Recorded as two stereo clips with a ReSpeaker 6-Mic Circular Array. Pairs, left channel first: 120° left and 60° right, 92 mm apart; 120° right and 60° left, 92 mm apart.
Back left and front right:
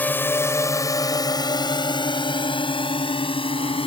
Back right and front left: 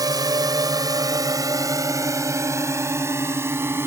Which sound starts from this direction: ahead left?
A drone, at 0.0 s.